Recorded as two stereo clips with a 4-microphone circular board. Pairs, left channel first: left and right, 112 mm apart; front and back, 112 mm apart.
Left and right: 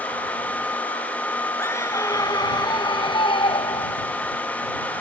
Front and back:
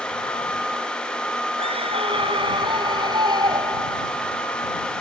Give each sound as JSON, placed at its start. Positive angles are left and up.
{"t": 1.6, "sound": "a scream", "azimuth_deg": 155}